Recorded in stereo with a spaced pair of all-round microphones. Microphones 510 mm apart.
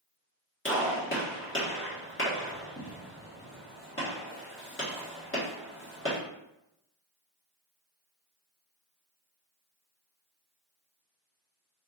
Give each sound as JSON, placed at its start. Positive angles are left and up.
{"t": 0.7, "sound": "a gunshot", "side_deg": 25, "distance_m": 1.4}